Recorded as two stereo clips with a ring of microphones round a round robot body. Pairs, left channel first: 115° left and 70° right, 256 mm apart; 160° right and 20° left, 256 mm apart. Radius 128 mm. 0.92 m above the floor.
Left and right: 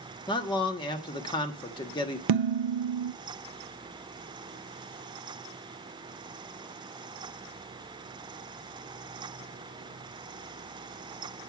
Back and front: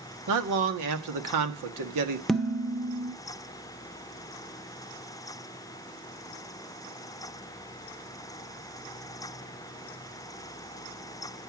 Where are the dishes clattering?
70° right, 0.6 m.